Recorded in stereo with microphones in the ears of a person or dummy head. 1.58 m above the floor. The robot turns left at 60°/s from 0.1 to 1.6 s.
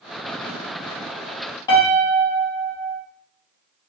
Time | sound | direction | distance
1.7 | a piano | 25° left (ahead or behind) | 1.1 m